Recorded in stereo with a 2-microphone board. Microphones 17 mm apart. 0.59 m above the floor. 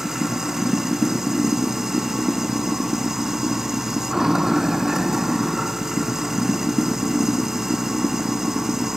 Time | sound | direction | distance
0.0 | running water | 20° right (ahead or behind) | ?